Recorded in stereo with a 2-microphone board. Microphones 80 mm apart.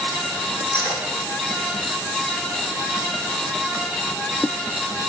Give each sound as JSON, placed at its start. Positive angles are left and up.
{"t": 0.7, "sound": "cutlery clinking", "side_deg": 65, "distance_m": 3.0}